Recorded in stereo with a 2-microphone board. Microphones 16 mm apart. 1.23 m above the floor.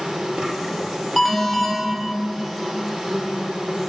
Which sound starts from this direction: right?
An insect, at 0.0 s.